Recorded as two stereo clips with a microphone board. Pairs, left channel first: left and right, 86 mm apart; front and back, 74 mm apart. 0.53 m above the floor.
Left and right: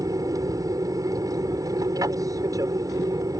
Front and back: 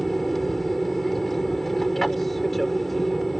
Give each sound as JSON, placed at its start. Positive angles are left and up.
{"t": 0.0, "sound": "an aircraft", "azimuth_deg": -85}